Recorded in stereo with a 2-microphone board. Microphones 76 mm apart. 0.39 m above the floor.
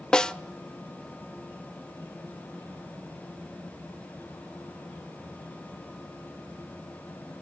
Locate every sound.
0.1 s a snare drum: 10° left (ahead or behind), 0.6 m